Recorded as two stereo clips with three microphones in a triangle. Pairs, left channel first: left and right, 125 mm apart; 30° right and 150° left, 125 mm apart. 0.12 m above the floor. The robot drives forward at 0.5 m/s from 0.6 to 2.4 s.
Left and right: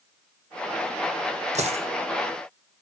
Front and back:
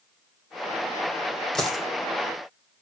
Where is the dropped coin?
115° right, 1.3 m; by 1.9 s 120° right, 1.4 m.